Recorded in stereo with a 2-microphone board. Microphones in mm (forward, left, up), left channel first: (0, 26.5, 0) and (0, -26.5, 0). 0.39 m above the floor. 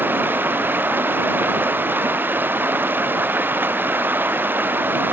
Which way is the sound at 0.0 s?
40° right (ahead or behind).